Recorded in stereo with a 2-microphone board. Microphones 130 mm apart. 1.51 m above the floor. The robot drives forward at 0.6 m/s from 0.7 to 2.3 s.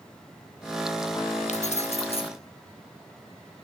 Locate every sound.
1.5 s keys jangling: 60° left (ahead or behind), 0.8 m; by 2.3 s 45° left (ahead or behind), 1.0 m